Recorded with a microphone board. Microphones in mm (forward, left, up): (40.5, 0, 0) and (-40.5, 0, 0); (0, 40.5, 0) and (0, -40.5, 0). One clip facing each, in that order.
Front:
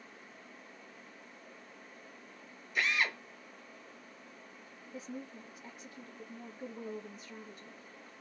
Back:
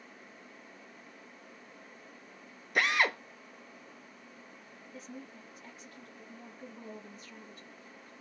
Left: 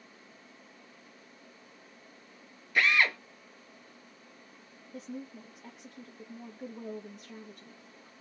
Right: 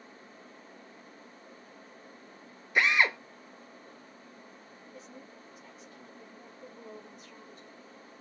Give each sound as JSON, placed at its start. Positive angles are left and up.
{"t": 2.8, "sound": "a drill", "azimuth_deg": -160, "distance_m": 1.1}
{"t": 4.9, "sound": "a woman speaking", "azimuth_deg": 70, "distance_m": 1.7}